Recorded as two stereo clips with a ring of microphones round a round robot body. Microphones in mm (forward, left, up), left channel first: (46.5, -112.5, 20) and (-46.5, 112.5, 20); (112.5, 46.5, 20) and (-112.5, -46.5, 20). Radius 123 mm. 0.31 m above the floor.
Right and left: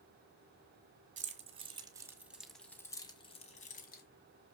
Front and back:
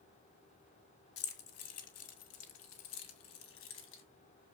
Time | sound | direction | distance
1.2 | keys jangling | 55° left | 1.7 m